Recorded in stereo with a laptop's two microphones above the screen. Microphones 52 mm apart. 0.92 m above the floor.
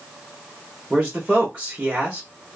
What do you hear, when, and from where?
0.9 s a man speaking: 25° right (ahead or behind), 0.9 m